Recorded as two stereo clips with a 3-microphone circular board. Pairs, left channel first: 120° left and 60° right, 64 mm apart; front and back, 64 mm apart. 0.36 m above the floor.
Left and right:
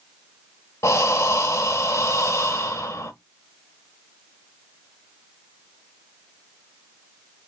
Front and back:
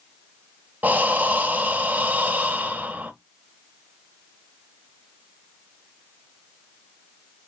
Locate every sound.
0.8 s breathing: 130° left, 0.8 m